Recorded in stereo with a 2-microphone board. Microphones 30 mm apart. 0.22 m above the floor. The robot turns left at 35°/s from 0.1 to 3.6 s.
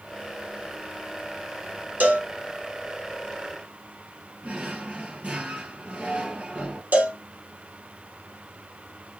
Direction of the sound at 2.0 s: 60° right (ahead or behind).